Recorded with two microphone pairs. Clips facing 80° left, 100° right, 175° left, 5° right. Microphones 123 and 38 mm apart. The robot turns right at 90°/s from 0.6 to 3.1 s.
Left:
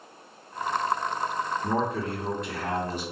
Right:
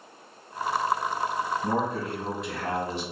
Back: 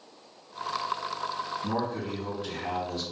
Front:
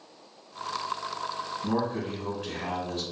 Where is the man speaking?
85° right, 1.2 m; by 3.0 s 40° left, 1.2 m.